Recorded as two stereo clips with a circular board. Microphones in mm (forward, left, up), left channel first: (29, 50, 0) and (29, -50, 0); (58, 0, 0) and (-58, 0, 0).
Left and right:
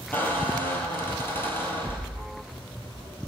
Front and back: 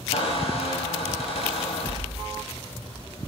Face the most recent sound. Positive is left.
turn(degrees=20)